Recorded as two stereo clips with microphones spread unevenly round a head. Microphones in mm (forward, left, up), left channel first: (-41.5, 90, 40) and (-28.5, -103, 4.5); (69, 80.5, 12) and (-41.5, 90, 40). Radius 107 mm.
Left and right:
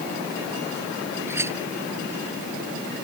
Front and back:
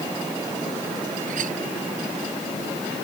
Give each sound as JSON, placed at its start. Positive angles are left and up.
{"t": 1.3, "sound": "a clink", "azimuth_deg": -165}